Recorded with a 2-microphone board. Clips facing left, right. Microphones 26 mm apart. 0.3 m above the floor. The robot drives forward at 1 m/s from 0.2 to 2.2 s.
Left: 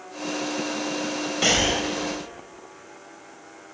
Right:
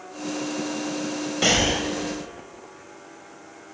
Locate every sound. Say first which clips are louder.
1.4 s breathing: right 1 dB; centre (ahead or behind), 1.2 m